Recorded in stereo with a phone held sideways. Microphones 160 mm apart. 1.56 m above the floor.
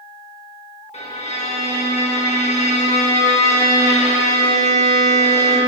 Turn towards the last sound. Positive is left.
turn(degrees=45)  # may be behind; listen again after turning